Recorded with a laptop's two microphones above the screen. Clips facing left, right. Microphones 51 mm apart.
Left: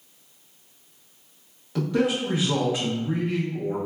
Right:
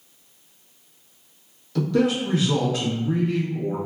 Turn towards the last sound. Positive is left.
turn(degrees=20)  # may be behind; listen again after turning